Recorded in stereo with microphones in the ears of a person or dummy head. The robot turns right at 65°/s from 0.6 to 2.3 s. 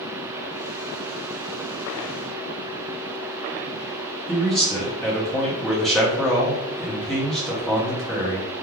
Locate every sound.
4.3 s a man speaking: 5° left (ahead or behind), 0.9 m